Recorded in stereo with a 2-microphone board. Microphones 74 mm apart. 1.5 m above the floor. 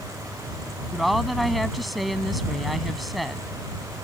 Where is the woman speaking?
Centre (ahead or behind).